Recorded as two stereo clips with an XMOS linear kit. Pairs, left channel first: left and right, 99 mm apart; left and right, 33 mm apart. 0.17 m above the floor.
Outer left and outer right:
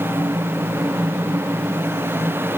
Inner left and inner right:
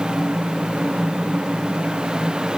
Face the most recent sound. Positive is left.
No sound to turn to.